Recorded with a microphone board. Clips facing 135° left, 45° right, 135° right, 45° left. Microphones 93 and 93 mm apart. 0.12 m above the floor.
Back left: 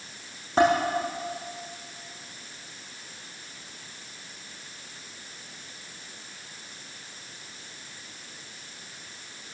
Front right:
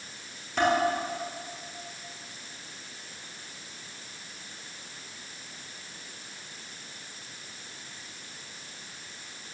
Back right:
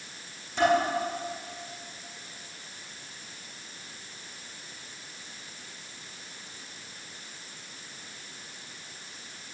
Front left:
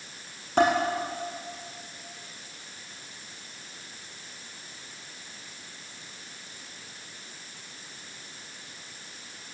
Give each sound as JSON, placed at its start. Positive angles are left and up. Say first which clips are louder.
{"t": 0.6, "sound": "dishes clattering", "louder": "back left 4 dB, front left 1 dB", "azimuth_deg": 80, "distance_m": 5.5}